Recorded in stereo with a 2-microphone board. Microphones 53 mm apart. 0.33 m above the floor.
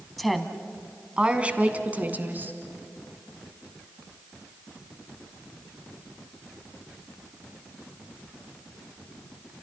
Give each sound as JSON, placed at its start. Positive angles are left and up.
{"t": 0.2, "sound": "a woman speaking", "side_deg": 5, "distance_m": 2.0}